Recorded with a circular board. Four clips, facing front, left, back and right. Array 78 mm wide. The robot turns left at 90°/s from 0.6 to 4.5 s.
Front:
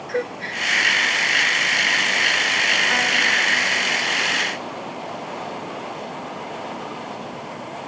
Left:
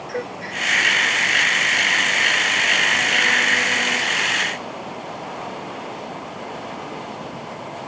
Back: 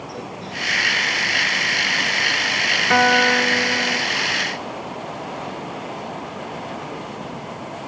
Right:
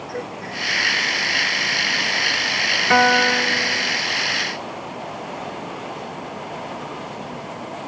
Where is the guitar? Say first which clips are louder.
Right 4 dB, back 5 dB; 115° right; by 4.1 s 135° left.